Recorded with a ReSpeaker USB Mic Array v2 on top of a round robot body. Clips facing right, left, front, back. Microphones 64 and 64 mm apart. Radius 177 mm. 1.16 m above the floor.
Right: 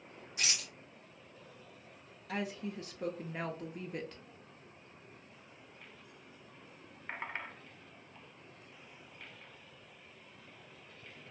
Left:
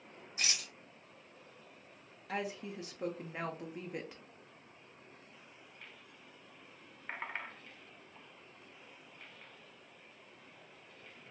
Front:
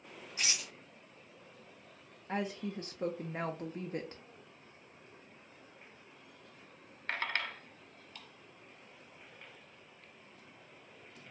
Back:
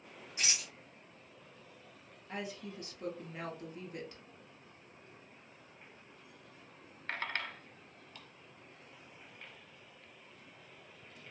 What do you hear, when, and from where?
0.4 s a rattle: 110° right, 1.0 m
2.3 s a woman speaking: 15° left, 0.7 m